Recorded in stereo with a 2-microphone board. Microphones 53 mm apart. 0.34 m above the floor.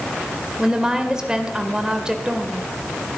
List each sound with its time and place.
0.6 s a woman speaking: 15° right (ahead or behind), 1.4 m